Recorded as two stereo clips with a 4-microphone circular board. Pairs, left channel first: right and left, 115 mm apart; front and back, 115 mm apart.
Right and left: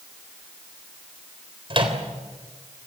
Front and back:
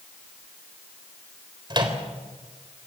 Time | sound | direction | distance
1.7 | a microwave | 130° left | 3.5 m